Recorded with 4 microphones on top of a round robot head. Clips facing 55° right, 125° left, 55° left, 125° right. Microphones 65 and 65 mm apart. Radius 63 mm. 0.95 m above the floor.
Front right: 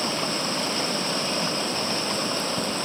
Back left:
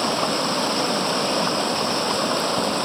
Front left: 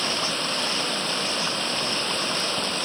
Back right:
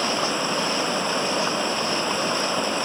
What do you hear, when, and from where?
0.0 s running water: 160° left